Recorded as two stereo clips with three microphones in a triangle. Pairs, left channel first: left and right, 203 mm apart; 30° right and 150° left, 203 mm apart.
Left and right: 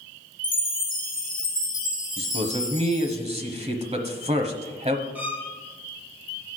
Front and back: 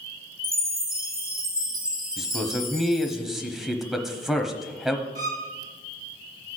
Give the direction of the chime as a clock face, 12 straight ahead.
7 o'clock.